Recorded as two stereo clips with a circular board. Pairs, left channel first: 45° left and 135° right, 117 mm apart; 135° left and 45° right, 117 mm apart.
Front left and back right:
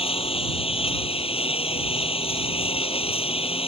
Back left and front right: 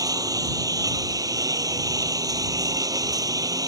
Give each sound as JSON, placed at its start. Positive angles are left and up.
{"t": 0.0, "sound": "a lawn mower", "azimuth_deg": 15}